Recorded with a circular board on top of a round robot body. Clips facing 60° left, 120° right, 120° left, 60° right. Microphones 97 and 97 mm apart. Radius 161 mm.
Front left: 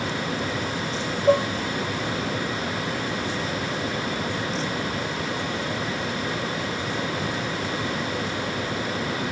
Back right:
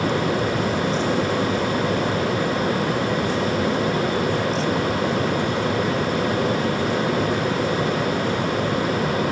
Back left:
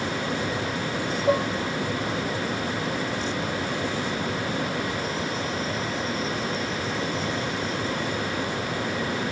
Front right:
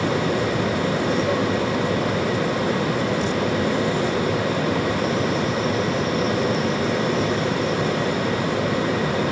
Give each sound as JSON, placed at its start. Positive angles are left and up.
{"t": 1.3, "sound": "dishes clattering", "azimuth_deg": 45}